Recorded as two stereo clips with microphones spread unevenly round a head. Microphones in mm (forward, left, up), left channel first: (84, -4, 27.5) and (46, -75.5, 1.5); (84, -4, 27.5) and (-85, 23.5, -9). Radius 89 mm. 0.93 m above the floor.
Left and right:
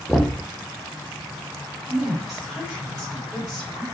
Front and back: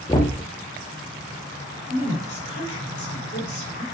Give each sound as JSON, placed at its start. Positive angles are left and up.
{"t": 0.1, "sound": "knocking", "azimuth_deg": -70, "distance_m": 0.5}
{"t": 1.9, "sound": "a woman speaking", "azimuth_deg": -35, "distance_m": 2.5}